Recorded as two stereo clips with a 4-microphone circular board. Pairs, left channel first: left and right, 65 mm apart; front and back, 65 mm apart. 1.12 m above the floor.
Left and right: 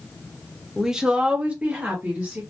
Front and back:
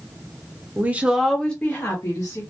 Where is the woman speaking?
165° right, 0.7 m; by 2.4 s 30° right, 1.0 m.